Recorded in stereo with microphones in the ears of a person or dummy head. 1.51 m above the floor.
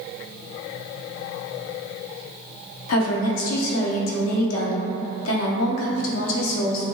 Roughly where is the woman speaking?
Left.